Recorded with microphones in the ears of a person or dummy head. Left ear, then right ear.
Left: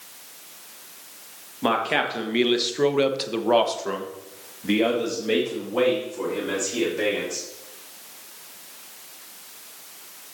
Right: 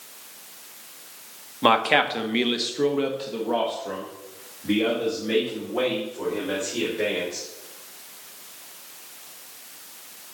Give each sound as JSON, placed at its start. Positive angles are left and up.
{"t": 1.6, "sound": "a man speaking", "side_deg": -25, "distance_m": 1.0}